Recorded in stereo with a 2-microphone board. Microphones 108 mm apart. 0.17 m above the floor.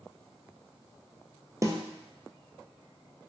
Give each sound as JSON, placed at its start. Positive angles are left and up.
{"t": 1.6, "sound": "a snare drum", "side_deg": -30, "distance_m": 0.6}